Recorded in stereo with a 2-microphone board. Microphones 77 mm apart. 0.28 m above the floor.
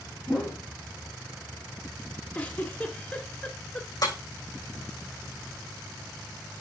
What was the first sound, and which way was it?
A whoosh, 10° right (ahead or behind).